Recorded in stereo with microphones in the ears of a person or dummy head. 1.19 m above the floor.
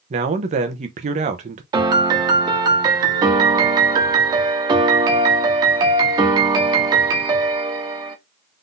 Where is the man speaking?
35° right (ahead or behind), 0.8 m.